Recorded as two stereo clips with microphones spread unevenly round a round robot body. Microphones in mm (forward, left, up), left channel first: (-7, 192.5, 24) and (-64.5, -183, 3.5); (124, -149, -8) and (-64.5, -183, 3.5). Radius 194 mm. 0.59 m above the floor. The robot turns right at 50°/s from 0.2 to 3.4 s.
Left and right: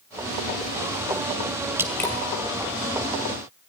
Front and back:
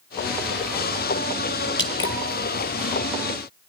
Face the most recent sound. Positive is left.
turn(degrees=65)